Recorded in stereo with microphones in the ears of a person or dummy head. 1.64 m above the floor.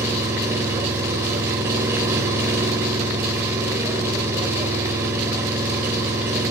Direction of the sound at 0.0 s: 15° right (ahead or behind).